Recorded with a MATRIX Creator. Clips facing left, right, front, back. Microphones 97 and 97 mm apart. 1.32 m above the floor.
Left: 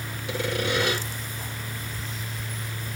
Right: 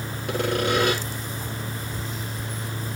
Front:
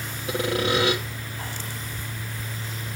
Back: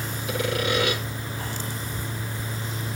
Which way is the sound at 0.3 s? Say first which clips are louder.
Right 4 dB, front 2 dB; 55° right.